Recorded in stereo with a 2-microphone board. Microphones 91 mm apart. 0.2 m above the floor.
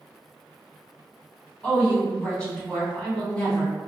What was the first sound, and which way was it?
A woman speaking, 15° left (ahead or behind).